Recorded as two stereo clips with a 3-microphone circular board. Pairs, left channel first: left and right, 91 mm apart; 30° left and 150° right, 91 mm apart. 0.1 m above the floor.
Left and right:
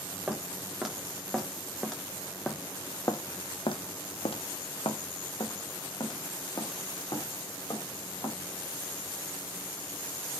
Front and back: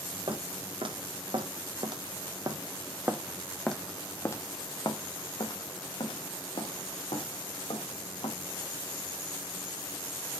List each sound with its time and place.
0.3 s footsteps: 170° right, 2 m; by 8.4 s 45° left, 3 m